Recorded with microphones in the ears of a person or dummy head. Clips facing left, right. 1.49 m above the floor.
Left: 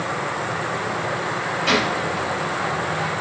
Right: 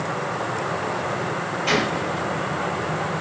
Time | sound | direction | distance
1.7 | a gunshot | 10° left (ahead or behind) | 1.5 m